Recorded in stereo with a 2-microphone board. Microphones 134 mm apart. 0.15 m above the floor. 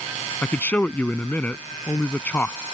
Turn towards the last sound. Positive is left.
turn(degrees=10)  # may be behind; listen again after turning